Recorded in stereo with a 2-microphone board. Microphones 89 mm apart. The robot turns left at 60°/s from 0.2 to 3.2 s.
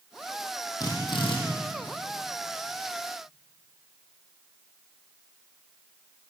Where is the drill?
135° left, 7.5 m; by 1.4 s 100° left, 7.5 m.